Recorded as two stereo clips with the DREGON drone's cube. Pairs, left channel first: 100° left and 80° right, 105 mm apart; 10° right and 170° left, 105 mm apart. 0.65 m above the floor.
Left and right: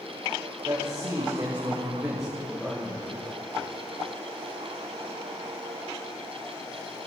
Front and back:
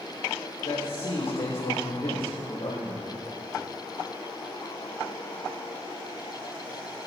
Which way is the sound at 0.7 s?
25° right.